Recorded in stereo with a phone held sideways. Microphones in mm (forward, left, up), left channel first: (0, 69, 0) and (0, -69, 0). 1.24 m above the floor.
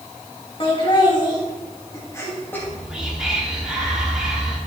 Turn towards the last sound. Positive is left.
turn(degrees=-5)  # may be behind; listen again after turning